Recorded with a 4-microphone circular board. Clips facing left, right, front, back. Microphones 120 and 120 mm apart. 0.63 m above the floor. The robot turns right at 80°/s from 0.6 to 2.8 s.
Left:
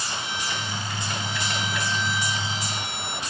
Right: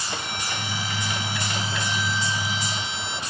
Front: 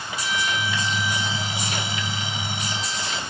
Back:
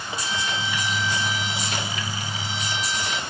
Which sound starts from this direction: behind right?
A violin, at 0.1 s.